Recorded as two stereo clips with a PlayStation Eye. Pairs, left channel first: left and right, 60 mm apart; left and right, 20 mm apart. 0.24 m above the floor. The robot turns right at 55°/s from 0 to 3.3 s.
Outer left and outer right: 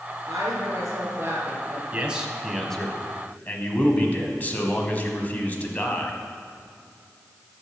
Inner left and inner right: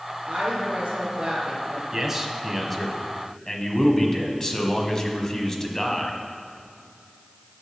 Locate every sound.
0.3 s a woman speaking: 105° right, 3.5 m; by 1.8 s 20° right, 3.5 m
1.9 s a man speaking: 35° right, 1.3 m; by 6.2 s 40° left, 1.3 m